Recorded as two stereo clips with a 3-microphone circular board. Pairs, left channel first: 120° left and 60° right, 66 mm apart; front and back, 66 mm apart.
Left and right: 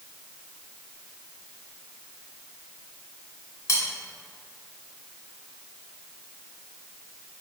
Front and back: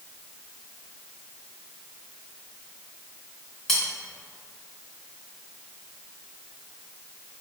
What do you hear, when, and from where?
3.7 s cutlery clinking: 80° left, 1.0 m